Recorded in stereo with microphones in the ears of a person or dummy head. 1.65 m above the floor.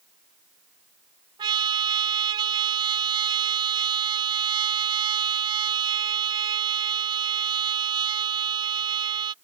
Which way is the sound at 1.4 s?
30° right (ahead or behind).